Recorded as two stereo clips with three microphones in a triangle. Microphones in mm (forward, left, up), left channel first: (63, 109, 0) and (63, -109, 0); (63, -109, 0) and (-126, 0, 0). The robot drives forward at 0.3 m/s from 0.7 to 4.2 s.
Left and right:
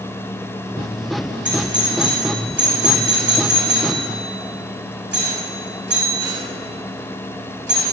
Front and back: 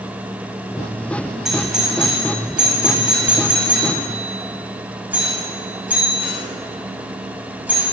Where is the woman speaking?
I don't hear a woman speaking.